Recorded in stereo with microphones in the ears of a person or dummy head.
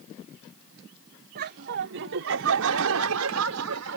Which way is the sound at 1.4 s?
55° right (ahead or behind).